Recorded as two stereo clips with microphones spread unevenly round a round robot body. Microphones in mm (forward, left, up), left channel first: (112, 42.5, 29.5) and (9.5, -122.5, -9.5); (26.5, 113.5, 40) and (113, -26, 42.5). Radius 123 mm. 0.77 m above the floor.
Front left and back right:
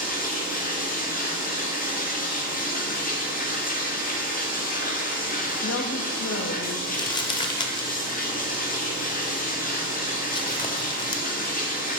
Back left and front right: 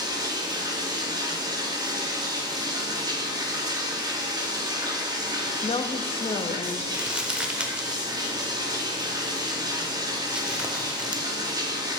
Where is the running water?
10° left, 1.2 m.